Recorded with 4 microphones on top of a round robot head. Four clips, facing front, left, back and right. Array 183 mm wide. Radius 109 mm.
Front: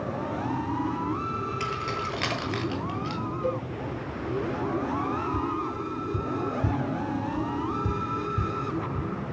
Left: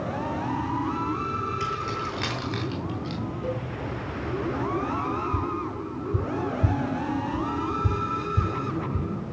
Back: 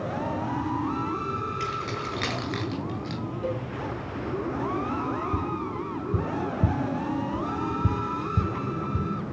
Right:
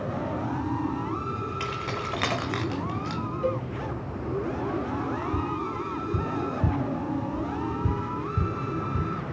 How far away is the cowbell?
About 4 m.